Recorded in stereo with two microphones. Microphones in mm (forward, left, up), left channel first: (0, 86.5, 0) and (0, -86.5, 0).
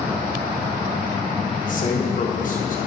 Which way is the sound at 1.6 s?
50° left (ahead or behind).